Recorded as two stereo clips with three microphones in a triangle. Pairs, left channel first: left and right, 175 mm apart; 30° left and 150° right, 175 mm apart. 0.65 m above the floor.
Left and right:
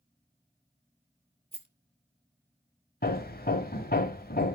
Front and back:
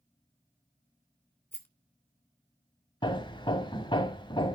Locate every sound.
1.5 s a rattle: 45° right, 1.8 m
3.0 s hammering: 85° left, 0.9 m